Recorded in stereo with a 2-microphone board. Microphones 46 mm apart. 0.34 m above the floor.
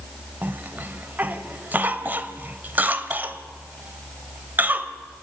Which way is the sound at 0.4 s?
35° right (ahead or behind).